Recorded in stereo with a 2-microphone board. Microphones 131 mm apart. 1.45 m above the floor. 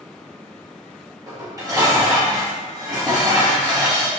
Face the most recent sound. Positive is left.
turn(degrees=-25)  # may be behind; listen again after turning